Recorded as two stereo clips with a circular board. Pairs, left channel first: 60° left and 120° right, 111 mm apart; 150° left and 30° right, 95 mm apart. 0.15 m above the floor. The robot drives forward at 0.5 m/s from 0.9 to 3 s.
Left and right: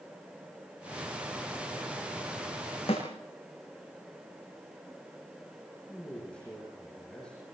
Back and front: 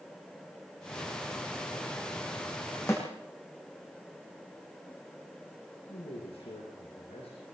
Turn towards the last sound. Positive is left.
turn(degrees=140)